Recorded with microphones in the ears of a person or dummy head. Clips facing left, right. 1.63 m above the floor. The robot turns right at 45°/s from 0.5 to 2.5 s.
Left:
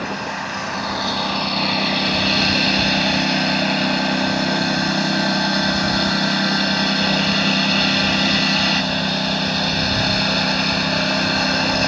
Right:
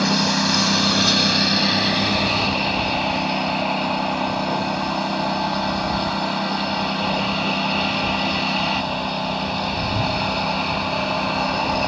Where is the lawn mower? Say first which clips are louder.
Right 6 dB; 70° right; by 11.9 s 20° left.